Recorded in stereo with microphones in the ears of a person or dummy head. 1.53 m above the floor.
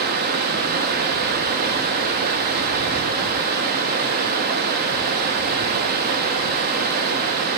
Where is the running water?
50° right (ahead or behind), 0.8 m.